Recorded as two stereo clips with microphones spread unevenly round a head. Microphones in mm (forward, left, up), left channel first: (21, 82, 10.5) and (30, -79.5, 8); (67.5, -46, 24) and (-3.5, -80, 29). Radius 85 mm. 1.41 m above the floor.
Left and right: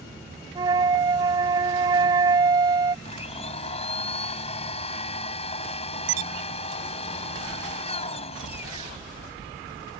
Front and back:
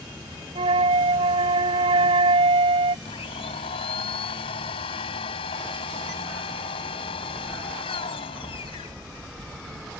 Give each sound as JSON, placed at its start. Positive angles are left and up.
{"t": 0.6, "sound": "a flute", "azimuth_deg": -155}
{"t": 3.0, "sound": "a blender", "azimuth_deg": 40}